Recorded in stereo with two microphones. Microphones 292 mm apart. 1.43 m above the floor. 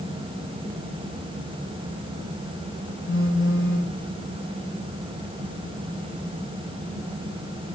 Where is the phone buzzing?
45° left (ahead or behind), 4.5 m.